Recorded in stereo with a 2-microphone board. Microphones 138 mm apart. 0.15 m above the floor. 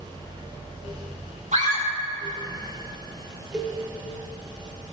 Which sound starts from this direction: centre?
A cowbell, at 3.5 s.